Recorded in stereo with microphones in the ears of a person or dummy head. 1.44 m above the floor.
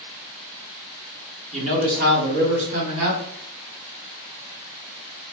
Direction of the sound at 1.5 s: 35° right (ahead or behind).